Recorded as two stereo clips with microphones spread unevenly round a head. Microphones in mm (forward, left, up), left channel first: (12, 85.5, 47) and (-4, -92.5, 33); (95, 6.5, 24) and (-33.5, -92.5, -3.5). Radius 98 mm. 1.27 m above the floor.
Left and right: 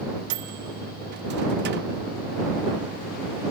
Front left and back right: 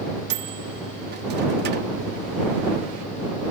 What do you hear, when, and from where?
0.3 s a microwave: 125° right